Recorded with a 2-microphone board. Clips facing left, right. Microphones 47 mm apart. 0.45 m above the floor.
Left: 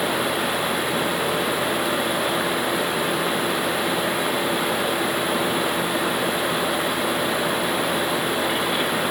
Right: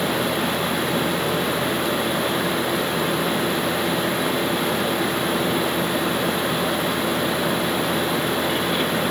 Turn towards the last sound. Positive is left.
No sound to turn to.